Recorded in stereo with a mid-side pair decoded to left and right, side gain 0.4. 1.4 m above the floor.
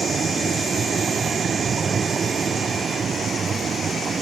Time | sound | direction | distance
0.0 | a vehicle | 45° right | ?